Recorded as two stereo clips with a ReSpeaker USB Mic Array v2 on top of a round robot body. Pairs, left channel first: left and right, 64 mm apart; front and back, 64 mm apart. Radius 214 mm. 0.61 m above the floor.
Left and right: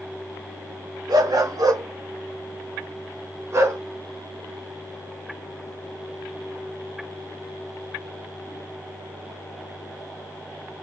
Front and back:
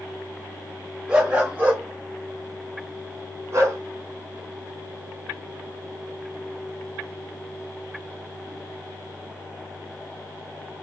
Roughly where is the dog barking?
Right.